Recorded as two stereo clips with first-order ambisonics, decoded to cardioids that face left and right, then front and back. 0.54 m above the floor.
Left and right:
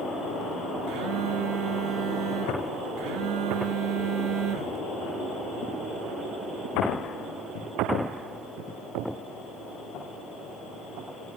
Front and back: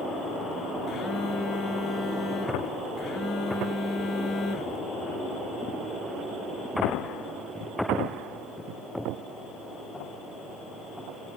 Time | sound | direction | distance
0.9 | a phone buzzing | 70° right | 1.6 m